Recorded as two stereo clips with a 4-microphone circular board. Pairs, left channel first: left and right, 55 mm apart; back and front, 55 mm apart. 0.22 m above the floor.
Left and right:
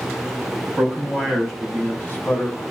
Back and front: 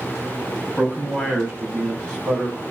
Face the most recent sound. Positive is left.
turn(degrees=100)